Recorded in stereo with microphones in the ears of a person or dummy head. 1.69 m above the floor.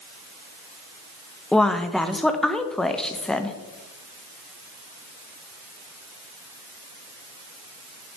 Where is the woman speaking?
5° right (ahead or behind), 0.5 m.